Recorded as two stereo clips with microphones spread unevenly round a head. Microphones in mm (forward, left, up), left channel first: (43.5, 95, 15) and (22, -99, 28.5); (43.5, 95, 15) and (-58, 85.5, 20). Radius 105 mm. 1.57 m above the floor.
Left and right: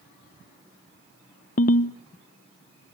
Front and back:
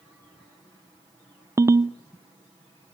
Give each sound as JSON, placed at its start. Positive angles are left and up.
{"t": 1.6, "sound": "a ringtone", "azimuth_deg": 130, "distance_m": 0.6}